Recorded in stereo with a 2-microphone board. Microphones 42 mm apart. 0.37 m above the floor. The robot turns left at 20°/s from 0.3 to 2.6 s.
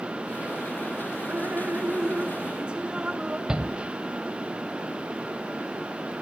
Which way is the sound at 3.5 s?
20° right (ahead or behind).